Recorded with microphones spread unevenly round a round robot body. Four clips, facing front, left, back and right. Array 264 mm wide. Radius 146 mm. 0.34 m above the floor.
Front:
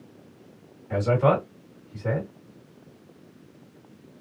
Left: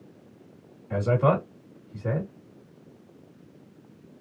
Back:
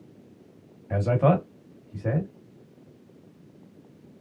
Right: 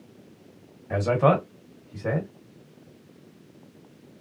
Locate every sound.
0.9 s a man speaking: 145° right, 1.5 m